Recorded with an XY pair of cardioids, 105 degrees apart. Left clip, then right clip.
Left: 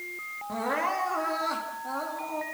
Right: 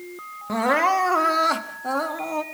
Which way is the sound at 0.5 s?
65° right.